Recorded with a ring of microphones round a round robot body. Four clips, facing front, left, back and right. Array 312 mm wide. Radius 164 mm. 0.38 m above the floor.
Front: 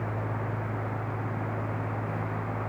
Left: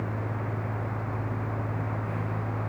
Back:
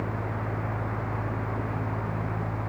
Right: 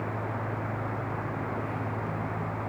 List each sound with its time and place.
Only background noise.